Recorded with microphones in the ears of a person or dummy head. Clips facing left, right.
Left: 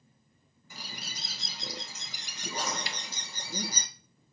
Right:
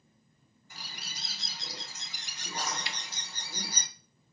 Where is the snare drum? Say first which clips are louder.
Left 2 dB; 40° left (ahead or behind), 1.0 m.